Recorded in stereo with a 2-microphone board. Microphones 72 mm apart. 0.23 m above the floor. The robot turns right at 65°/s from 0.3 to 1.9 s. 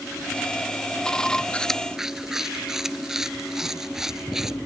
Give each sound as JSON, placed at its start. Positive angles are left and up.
{"t": 1.5, "sound": "chewing", "side_deg": 20}